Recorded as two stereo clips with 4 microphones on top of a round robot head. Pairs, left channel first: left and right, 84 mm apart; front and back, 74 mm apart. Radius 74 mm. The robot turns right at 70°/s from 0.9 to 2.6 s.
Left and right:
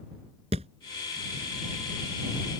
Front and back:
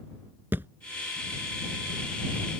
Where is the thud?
105° right.